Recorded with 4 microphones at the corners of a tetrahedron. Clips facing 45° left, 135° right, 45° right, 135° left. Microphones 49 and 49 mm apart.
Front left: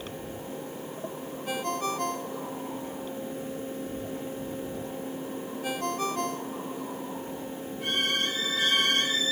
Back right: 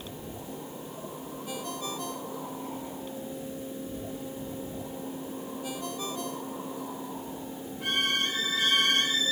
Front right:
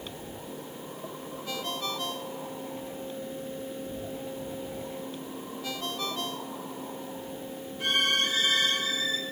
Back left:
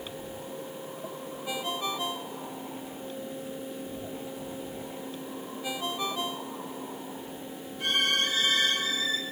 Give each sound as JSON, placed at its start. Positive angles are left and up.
{"t": 1.5, "sound": "a ringtone", "azimuth_deg": 60}